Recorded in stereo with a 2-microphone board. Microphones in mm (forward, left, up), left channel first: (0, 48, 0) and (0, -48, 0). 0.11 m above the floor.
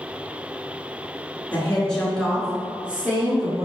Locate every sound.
1.5 s a woman speaking: 15° left (ahead or behind), 1.4 m; by 3.6 s 25° right (ahead or behind), 1.5 m